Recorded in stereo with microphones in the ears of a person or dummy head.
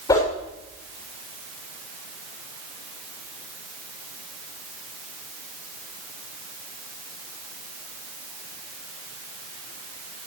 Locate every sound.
0.1 s a whoosh: 25° left (ahead or behind), 6.5 m